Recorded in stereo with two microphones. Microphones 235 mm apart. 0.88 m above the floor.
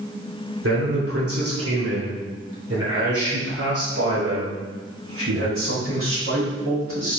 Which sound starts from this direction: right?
A man speaking, at 0.6 s.